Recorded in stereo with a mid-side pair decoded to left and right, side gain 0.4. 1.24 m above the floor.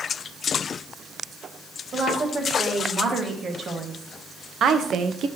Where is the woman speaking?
50° right, 2.5 m; by 5.3 s 75° right, 0.6 m.